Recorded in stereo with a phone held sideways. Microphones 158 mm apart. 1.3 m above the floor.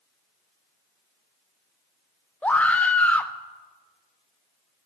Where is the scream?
10° left (ahead or behind), 0.5 m.